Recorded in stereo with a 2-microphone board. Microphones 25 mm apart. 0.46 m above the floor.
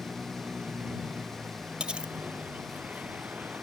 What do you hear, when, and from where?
0.0 s a vehicle: 85° right
1.8 s cutlery clinking: 35° right (ahead or behind)